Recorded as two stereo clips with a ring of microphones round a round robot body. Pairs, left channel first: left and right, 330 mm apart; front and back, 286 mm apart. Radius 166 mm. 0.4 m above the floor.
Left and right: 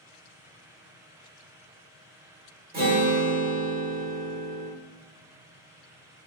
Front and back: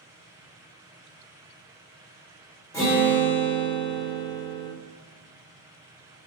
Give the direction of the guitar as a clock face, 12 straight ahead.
2 o'clock.